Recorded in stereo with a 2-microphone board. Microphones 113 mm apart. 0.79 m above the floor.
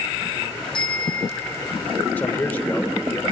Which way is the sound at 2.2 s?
15° left (ahead or behind).